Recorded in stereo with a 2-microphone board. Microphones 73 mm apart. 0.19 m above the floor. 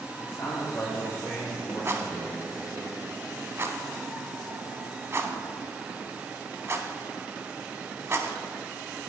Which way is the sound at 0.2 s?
50° left (ahead or behind).